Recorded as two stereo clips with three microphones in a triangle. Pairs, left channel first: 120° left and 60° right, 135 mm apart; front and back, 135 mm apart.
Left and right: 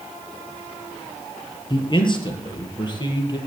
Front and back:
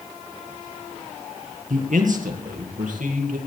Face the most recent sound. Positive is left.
turn(degrees=175)